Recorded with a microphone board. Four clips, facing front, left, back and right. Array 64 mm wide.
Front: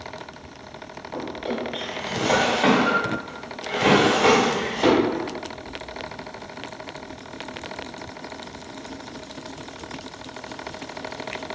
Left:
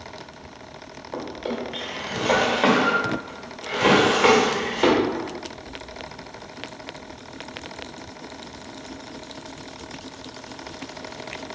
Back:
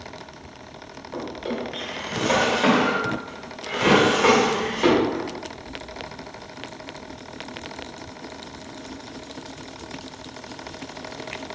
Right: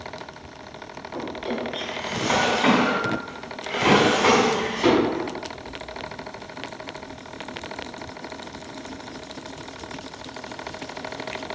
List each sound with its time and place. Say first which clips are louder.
1.1 s a drawer: even, front 1 dB; 90° left, 1.7 m